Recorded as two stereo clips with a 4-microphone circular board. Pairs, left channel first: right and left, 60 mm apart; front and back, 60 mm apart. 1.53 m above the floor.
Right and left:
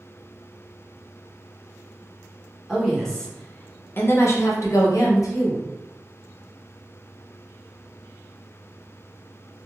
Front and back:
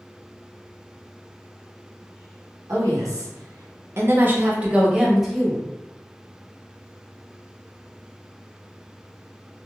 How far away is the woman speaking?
About 0.9 m.